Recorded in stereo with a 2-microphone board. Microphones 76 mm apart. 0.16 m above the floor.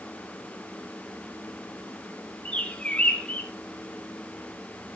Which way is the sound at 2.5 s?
15° left (ahead or behind).